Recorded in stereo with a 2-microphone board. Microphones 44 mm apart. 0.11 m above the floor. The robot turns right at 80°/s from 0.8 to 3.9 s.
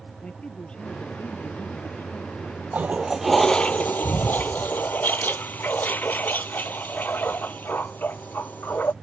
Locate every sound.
0.2 s a man speaking: 30° left; by 2.6 s 175° left
2.7 s a toilet flushing: 45° right; by 8.9 s 50° left